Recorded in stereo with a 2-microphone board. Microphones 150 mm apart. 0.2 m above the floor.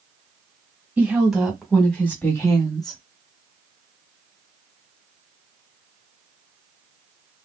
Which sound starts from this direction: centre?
A woman speaking, at 1.0 s.